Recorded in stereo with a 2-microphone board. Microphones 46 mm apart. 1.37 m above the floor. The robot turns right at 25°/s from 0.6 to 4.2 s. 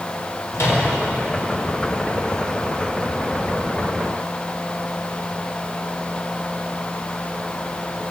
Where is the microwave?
70° left (ahead or behind), 5 m; by 0.8 s 65° left (ahead or behind), 5 m.